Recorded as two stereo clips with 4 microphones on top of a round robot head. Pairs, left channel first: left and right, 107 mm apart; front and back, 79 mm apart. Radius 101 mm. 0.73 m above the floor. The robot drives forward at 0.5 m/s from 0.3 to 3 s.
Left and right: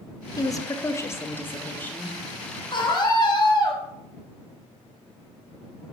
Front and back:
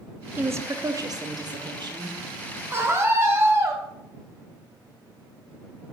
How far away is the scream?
About 1.3 m.